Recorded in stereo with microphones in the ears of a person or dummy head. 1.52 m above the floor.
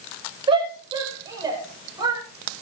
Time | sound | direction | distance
0.5 | a shout | 25° right (ahead or behind) | 6.5 m